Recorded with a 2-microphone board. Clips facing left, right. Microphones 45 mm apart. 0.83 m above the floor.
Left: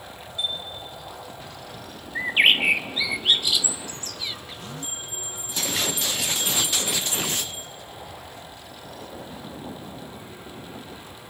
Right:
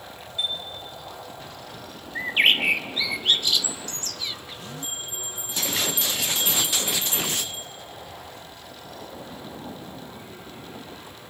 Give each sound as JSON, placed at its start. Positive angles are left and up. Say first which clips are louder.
{"t": 0.4, "sound": "a chime", "louder": "even", "side_deg": -25, "distance_m": 3.0}
{"t": 2.1, "sound": "a bird", "louder": "left 1 dB", "side_deg": 10, "distance_m": 0.7}
{"t": 4.8, "sound": "a bell", "louder": "right 1 dB", "side_deg": -30, "distance_m": 3.0}